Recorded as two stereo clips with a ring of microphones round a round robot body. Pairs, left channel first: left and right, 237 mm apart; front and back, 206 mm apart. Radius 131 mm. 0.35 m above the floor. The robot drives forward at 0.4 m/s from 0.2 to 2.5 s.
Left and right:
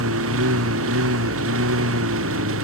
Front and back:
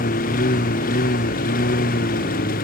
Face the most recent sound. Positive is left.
turn(degrees=-55)